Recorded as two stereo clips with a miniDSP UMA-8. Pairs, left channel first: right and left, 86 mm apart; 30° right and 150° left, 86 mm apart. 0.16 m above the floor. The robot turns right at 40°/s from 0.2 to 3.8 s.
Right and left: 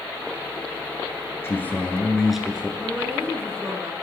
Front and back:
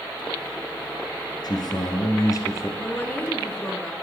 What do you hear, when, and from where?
1.4 s a man speaking: 35° right, 1.9 m; by 2.7 s 15° left, 1.9 m
2.8 s a woman speaking: 15° left, 1.5 m; by 3.9 s 55° left, 1.5 m